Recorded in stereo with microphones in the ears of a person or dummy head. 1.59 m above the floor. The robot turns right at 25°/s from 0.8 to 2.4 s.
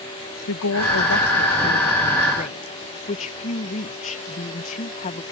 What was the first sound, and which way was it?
A woman speaking, 100° left.